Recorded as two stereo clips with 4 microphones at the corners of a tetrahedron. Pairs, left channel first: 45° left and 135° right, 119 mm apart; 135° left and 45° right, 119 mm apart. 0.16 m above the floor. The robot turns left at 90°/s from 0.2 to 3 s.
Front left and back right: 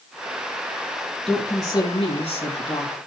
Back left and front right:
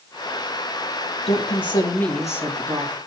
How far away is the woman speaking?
About 3.5 m.